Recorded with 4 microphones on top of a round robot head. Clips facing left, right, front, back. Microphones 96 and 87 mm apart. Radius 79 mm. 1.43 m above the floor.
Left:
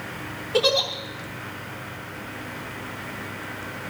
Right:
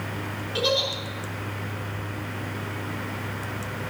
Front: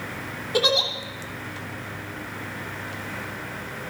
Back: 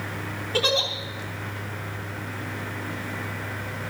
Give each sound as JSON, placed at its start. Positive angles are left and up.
{"t": 0.5, "sound": "a giggle", "azimuth_deg": 70, "distance_m": 3.0}